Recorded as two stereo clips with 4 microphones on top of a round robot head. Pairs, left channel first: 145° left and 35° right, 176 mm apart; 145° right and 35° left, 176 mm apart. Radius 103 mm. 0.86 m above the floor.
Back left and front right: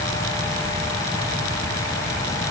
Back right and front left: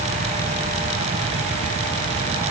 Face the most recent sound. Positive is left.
No sound to turn to.